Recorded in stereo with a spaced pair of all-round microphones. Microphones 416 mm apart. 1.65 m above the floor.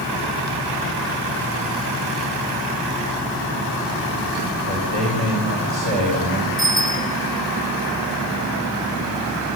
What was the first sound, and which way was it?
A man speaking, 80° right.